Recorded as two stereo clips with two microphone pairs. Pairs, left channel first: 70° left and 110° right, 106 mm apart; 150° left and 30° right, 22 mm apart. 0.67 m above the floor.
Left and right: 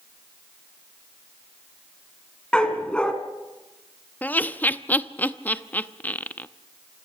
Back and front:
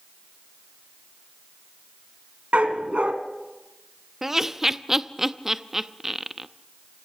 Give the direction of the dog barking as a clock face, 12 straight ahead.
12 o'clock.